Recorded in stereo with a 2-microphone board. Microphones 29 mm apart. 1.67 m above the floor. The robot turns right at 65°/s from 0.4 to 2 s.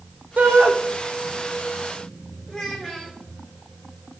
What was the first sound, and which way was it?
A shout, 70° right (ahead or behind).